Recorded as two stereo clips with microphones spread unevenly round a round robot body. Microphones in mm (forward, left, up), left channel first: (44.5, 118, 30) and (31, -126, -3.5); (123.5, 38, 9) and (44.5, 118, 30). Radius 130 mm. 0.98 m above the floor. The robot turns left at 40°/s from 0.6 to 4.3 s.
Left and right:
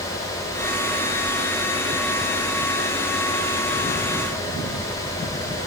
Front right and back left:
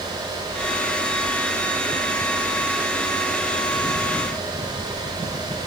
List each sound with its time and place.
Only background noise.